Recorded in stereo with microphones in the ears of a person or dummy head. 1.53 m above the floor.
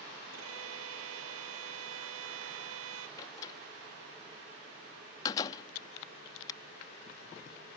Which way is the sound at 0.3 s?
85° right.